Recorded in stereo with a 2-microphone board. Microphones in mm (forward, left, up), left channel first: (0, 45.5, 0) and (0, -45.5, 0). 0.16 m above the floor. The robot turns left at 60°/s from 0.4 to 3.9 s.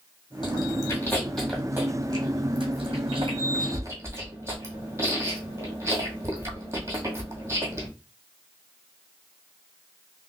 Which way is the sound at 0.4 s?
55° left (ahead or behind).